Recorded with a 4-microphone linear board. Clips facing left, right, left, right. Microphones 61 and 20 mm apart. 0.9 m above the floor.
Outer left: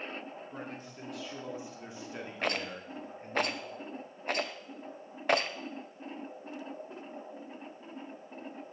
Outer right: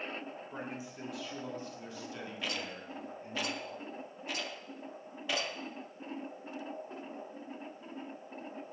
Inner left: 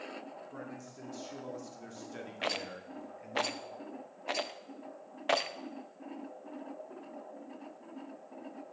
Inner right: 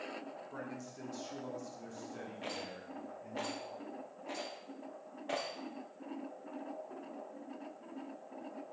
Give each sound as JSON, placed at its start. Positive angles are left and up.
{"t": 0.5, "sound": "a man speaking", "side_deg": -15, "distance_m": 2.5}
{"t": 2.4, "sound": "a rattle", "side_deg": 50, "distance_m": 0.6}